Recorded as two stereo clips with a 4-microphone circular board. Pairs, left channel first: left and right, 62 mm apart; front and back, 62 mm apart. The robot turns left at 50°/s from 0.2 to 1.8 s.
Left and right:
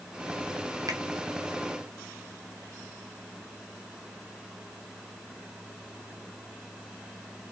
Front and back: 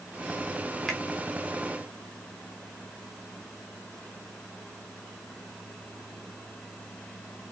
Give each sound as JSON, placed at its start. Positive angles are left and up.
{"t": 0.9, "sound": "a finger snap", "azimuth_deg": -85, "distance_m": 0.8}